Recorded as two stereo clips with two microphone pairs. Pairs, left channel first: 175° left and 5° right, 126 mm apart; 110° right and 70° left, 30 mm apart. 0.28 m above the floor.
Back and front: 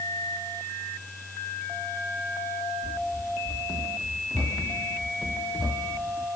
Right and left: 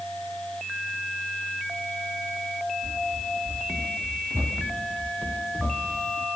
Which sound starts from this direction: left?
Running footsteps, at 2.8 s.